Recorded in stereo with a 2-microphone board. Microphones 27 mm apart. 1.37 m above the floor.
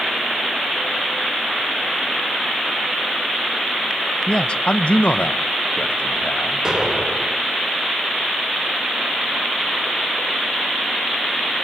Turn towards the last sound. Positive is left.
turn(degrees=-25)  # may be behind; listen again after turning